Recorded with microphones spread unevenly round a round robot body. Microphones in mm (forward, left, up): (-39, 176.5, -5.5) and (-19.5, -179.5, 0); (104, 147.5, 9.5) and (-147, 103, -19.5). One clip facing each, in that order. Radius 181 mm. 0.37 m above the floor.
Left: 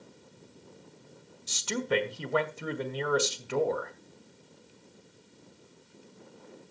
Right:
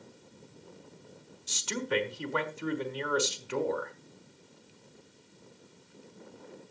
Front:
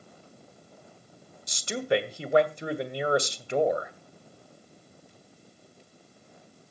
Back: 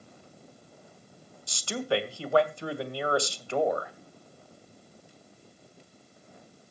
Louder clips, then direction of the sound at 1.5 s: Left 3 dB, front 2 dB; 80° left.